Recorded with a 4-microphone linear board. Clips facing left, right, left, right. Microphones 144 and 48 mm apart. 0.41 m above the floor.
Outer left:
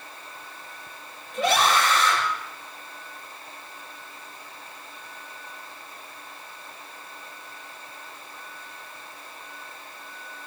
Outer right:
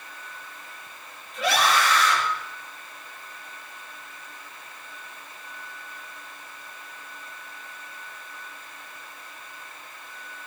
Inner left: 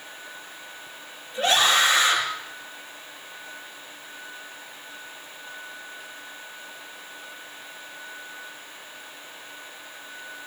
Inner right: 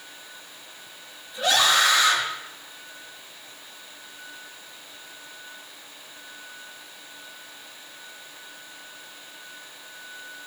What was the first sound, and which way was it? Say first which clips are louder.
A scream: outer left 1 dB, even; 45° left (ahead or behind).